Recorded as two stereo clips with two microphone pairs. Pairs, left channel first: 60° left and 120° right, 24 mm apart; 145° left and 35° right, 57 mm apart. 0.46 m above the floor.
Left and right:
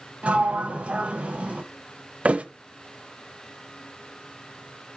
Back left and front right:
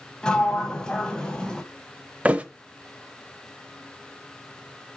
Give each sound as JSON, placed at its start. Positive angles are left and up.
{"t": 0.2, "sound": "a sliding door", "azimuth_deg": -140, "distance_m": 1.6}
{"t": 2.2, "sound": "a thud", "azimuth_deg": -100, "distance_m": 0.8}